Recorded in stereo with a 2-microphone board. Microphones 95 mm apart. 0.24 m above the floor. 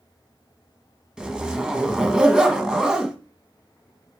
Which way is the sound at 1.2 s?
10° right (ahead or behind).